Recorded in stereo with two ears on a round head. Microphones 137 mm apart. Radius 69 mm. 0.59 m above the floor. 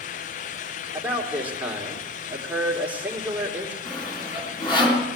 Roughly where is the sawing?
Left.